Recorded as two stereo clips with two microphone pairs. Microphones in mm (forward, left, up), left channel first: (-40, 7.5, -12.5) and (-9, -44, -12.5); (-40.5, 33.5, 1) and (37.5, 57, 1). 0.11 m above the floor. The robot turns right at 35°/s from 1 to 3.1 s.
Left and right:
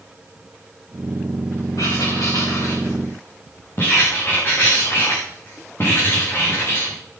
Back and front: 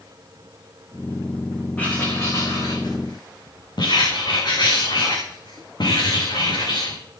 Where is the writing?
125° left, 7 m; by 7.0 s 170° left, 7 m.